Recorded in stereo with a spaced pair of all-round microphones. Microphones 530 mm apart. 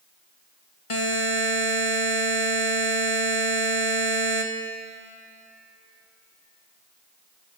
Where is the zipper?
I don't hear a zipper.